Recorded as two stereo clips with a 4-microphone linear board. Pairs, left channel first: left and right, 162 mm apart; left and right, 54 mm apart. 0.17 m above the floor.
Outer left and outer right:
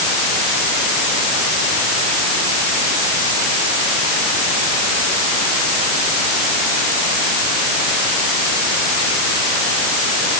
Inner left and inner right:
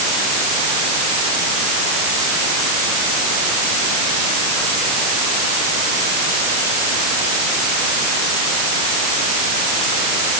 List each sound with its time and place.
Only background noise.